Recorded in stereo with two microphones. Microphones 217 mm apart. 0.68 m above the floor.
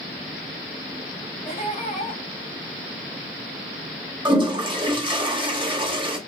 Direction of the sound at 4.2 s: 20° right (ahead or behind).